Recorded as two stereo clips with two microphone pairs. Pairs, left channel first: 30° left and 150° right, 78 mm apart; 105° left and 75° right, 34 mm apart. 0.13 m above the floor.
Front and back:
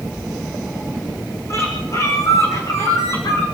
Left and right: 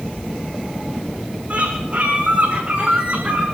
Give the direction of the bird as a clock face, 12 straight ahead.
1 o'clock.